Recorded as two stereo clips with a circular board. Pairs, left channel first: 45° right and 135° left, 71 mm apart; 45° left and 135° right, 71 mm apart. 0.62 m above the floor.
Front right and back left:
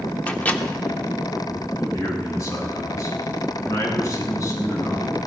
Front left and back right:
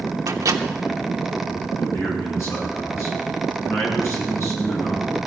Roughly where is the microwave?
Right.